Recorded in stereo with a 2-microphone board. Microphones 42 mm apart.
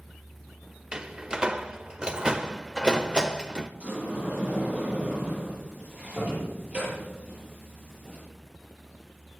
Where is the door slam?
20° right (ahead or behind), 0.9 m.